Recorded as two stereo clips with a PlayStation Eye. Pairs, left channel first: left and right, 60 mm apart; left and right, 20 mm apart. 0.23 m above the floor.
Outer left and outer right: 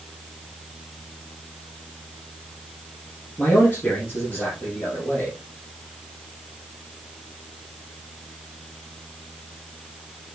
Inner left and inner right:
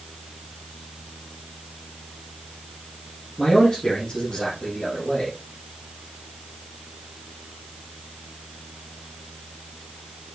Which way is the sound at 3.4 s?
35° left (ahead or behind).